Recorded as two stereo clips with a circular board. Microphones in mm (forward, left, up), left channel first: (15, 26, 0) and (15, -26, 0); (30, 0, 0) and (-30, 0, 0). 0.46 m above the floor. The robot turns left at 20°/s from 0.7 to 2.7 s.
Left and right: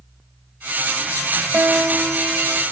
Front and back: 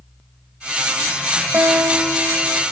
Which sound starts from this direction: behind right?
A guitar, at 1.5 s.